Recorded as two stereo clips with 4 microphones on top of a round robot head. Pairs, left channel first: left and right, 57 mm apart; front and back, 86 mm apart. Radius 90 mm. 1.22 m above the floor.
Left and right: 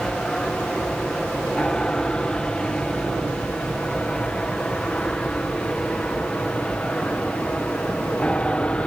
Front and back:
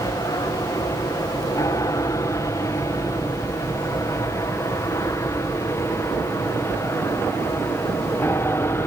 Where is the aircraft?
20° left; by 8.9 s 35° left.